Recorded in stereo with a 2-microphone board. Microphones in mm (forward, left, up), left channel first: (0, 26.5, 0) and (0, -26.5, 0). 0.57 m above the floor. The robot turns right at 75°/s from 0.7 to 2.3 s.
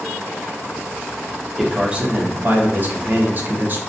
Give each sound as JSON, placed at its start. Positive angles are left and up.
{"t": 1.6, "sound": "a man speaking", "azimuth_deg": -175, "distance_m": 0.8}